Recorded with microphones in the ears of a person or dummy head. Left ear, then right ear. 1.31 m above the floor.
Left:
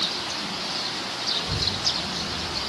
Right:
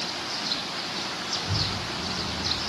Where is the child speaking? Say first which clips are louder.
Even; 10° left (ahead or behind), 2 m; by 2.6 s 25° right (ahead or behind), 0.9 m.